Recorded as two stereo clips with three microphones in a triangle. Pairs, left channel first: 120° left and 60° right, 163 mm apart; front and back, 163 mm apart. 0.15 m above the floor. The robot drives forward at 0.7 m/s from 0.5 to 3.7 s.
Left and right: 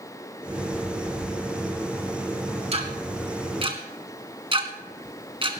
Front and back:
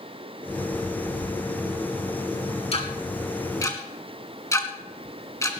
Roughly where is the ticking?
Ahead right.